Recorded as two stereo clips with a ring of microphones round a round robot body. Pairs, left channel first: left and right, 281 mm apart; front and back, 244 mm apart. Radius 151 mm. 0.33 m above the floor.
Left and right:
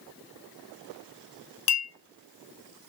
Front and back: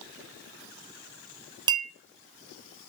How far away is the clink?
About 1.3 m.